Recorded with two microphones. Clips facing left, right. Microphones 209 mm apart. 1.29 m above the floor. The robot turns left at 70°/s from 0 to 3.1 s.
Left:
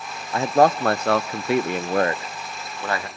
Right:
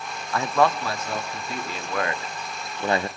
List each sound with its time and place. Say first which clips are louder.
0.3 s a man speaking: left 4 dB; 160° left, 0.6 m; by 3.1 s 35° right, 0.6 m